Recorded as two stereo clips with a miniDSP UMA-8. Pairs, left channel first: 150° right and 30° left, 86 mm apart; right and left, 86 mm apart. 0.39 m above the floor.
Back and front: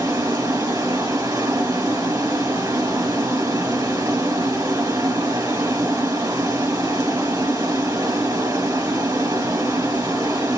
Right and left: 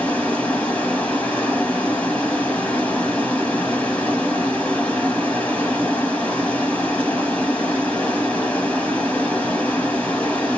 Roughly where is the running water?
Ahead.